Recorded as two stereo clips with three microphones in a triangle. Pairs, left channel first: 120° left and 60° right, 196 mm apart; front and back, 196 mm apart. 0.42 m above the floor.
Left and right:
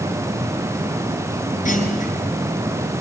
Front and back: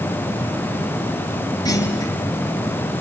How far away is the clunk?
About 3.5 m.